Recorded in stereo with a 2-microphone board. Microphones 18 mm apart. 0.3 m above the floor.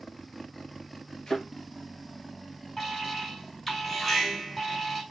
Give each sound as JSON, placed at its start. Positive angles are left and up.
{"t": 1.3, "sound": "a thud", "side_deg": 35, "distance_m": 3.0}
{"t": 2.8, "sound": "an alarm", "side_deg": 10, "distance_m": 3.0}